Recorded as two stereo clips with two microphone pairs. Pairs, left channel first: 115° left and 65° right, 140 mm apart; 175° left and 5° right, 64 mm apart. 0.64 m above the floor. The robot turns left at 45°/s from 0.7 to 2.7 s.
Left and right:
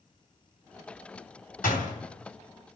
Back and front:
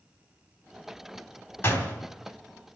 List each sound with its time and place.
1.6 s a door slam: 120° left, 3 m; by 1.9 s 105° left, 3 m